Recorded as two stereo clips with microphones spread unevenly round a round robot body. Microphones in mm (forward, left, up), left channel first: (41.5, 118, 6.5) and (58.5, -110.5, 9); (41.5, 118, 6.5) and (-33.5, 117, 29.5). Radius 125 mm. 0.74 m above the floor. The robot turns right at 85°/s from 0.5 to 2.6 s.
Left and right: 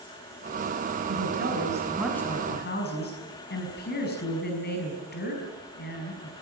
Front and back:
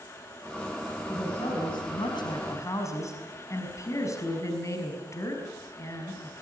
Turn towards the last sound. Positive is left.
turn(degrees=45)